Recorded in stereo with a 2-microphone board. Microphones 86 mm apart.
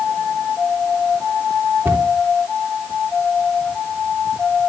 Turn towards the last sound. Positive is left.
turn(degrees=-30)  # may be behind; listen again after turning